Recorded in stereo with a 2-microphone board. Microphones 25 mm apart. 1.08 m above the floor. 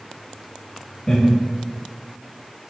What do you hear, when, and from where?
1.1 s laughter: 25° left (ahead or behind), 2.0 m